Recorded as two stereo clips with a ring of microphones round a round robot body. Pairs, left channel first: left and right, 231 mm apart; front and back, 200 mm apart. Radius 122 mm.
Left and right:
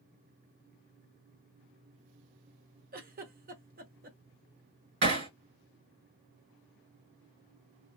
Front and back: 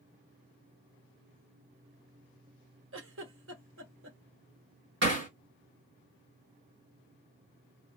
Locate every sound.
2.9 s a giggle: 145° right, 1.0 m
5.0 s hammering: 135° right, 2 m